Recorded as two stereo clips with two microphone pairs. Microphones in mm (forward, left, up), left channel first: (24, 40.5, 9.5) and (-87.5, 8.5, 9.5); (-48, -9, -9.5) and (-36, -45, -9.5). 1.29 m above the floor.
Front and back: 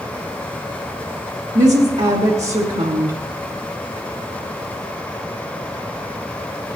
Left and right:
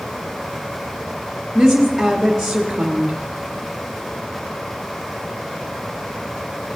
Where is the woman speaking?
160° right, 1.4 m.